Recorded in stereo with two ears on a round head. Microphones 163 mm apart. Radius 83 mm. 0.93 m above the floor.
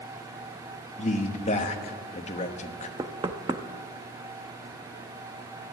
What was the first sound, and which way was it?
A man speaking, 40° left (ahead or behind).